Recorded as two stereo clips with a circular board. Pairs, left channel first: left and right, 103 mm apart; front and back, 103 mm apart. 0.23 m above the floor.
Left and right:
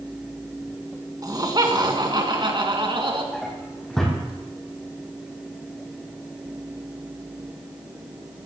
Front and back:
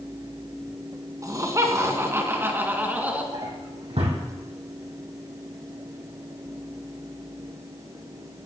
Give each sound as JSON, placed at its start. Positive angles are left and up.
{"t": 1.2, "sound": "laughter", "azimuth_deg": -135, "distance_m": 2.5}
{"t": 3.3, "sound": "a drawer", "azimuth_deg": 175, "distance_m": 3.5}